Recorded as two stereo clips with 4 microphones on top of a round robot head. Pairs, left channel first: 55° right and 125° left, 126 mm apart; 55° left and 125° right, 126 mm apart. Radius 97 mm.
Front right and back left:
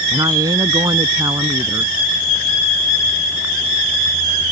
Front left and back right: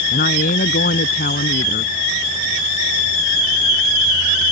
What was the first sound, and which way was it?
A woman speaking, 60° left.